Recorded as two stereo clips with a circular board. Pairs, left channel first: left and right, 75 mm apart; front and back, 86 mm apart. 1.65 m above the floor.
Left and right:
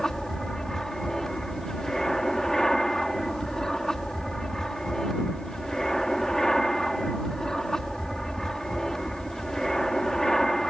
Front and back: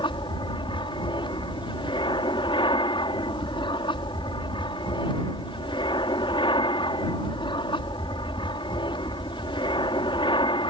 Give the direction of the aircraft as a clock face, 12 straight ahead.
12 o'clock.